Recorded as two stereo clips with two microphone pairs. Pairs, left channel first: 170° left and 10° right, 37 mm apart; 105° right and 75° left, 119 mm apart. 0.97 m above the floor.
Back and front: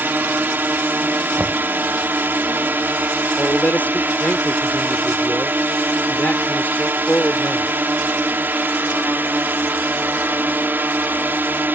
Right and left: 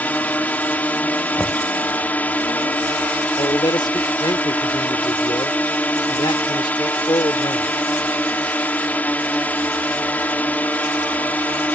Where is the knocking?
25° right.